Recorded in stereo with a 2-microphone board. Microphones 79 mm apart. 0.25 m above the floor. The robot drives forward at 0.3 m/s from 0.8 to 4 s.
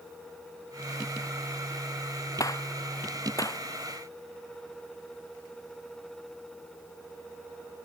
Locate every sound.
2.4 s a gunshot: 45° left (ahead or behind)